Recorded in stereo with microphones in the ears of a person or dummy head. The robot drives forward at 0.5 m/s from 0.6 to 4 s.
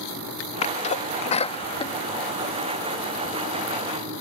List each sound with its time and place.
0.6 s a sneeze: 35° left (ahead or behind); by 3.3 s 25° left (ahead or behind)